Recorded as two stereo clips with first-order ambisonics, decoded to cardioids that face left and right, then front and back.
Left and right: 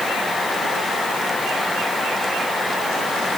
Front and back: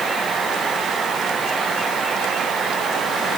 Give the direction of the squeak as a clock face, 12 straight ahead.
I don't hear a squeak.